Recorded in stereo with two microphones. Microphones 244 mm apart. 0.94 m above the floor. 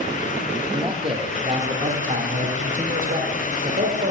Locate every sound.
0.7 s a man speaking: 20° right (ahead or behind), 3 m; by 4.1 s 40° right (ahead or behind), 4 m